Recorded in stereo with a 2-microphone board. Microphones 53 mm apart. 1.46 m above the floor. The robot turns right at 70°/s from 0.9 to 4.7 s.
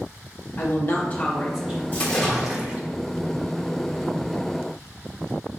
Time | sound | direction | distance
0.6 | a woman speaking | 140° left | 1.0 m
1.9 | a splash | 140° left | 0.9 m